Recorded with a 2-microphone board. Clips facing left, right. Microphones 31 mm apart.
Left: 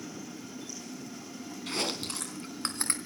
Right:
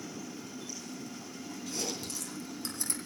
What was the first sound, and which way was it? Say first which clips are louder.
Chewing: left 5 dB; 50° left (ahead or behind).